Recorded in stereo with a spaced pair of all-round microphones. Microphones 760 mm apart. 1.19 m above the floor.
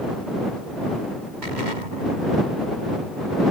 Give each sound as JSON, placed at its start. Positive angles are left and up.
{"t": 1.4, "sound": "an explosion", "side_deg": -75}